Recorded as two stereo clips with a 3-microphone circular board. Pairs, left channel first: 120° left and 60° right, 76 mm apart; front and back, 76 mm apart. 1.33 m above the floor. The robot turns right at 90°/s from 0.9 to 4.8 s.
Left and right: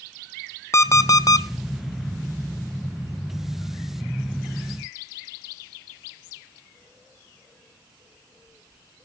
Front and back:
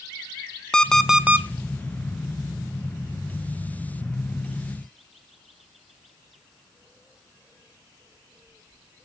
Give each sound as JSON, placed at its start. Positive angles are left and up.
{"t": 0.7, "sound": "an alarm clock", "azimuth_deg": 80, "distance_m": 0.5}